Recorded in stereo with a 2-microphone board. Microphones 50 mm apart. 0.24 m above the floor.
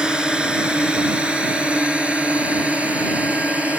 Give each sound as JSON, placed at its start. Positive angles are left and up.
{"t": 0.0, "sound": "a drone", "side_deg": -15}